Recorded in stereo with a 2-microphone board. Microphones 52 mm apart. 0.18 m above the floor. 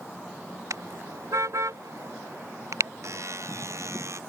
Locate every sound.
0.7 s a car horn: 75° right (ahead or behind); by 2.9 s 70° right (ahead or behind)
3.0 s a buzzer: 65° right (ahead or behind)